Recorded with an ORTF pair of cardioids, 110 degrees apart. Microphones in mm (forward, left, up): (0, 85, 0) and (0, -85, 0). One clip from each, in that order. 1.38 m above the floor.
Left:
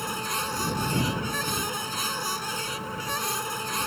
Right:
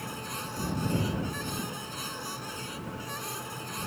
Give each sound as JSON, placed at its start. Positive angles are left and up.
{"t": 0.0, "sound": "a machine running", "azimuth_deg": 50}